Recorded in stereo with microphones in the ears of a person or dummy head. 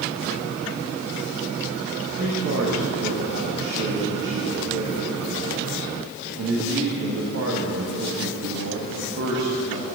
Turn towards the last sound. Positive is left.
turn(degrees=-65)  # may be behind; listen again after turning